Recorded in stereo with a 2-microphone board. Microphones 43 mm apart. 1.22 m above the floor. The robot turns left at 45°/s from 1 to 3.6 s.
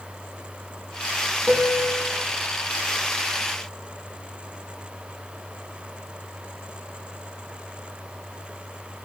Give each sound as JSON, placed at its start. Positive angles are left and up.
{"t": 1.5, "sound": "a piano", "azimuth_deg": -25, "distance_m": 2.5}